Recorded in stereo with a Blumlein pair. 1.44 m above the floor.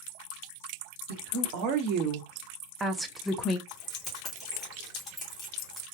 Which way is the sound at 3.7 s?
20° left.